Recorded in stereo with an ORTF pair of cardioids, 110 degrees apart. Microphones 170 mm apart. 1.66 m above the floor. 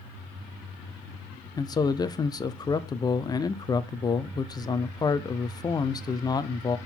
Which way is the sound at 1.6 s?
25° left.